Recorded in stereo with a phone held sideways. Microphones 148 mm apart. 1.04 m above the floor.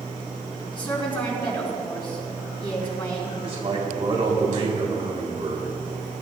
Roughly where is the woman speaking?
Left.